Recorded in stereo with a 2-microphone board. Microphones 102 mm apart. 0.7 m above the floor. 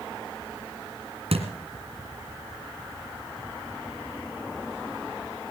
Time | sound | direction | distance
1.3 | a thud | 75° right (ahead or behind) | 2 m